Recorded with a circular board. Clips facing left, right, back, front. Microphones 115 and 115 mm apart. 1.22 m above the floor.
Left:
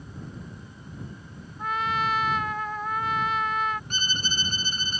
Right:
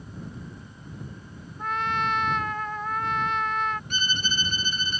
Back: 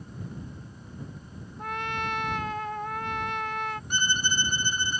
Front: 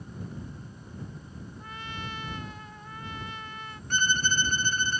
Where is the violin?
110° left.